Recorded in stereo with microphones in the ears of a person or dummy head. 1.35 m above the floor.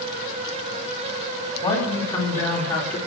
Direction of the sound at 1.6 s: 25° left (ahead or behind).